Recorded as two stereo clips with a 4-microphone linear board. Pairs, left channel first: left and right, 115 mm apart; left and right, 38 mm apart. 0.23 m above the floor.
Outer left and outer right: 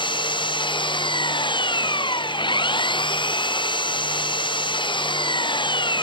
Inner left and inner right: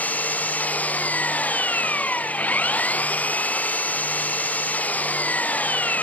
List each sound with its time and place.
0.0 s an engine running: 45° left (ahead or behind)